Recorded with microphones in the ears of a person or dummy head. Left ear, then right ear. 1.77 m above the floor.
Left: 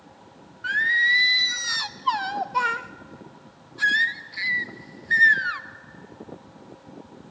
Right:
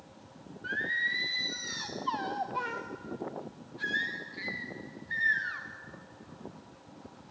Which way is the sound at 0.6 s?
50° left (ahead or behind).